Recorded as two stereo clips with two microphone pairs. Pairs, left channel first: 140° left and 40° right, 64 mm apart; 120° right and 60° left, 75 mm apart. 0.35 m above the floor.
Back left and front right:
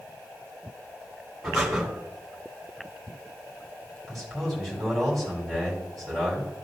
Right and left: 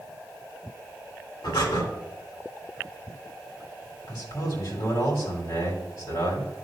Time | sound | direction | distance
1.4 | breathing | 120° right | 1.9 m
4.1 | a man speaking | 130° right | 2.5 m